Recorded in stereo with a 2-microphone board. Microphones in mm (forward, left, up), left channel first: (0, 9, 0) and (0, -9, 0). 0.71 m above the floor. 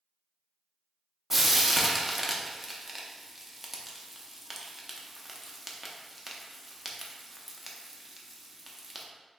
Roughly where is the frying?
Centre.